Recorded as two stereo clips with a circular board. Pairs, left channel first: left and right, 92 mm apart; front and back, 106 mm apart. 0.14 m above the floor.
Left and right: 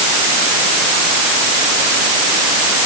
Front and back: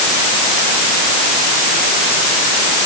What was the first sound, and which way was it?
Only background noise.